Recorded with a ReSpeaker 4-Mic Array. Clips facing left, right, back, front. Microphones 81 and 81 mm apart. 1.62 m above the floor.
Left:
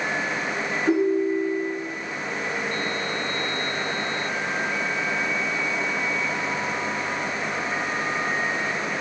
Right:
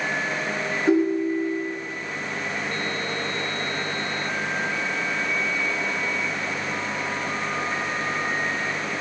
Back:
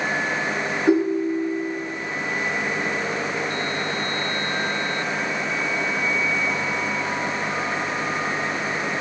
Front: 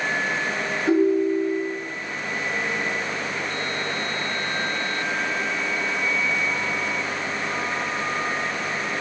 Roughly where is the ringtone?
Behind right.